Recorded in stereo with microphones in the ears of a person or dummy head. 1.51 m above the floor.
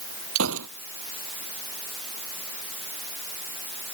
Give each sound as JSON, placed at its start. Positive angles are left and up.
{"t": 0.3, "sound": "a gunshot", "side_deg": -80}